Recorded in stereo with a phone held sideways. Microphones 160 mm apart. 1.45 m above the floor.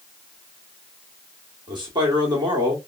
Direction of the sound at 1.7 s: 30° right (ahead or behind).